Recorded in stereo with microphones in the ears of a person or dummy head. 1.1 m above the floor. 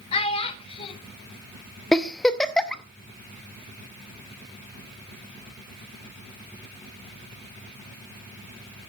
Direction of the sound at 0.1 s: 35° left (ahead or behind).